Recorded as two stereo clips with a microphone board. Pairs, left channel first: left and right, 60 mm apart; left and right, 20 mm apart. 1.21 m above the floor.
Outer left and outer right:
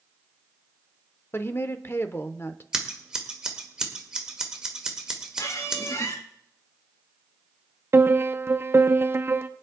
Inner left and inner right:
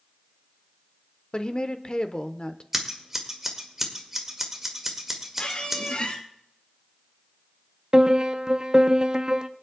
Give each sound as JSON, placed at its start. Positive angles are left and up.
{"t": 1.3, "sound": "a woman speaking", "side_deg": 40, "distance_m": 0.8}
{"t": 2.7, "sound": "scissors", "side_deg": -10, "distance_m": 1.7}
{"t": 5.4, "sound": "a squeak", "side_deg": 55, "distance_m": 1.3}
{"t": 7.9, "sound": "a piano", "side_deg": -40, "distance_m": 0.6}